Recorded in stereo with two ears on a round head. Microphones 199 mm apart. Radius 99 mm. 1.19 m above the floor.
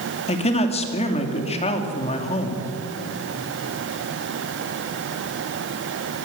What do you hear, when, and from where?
0.3 s a man speaking: 30° left (ahead or behind), 2.5 m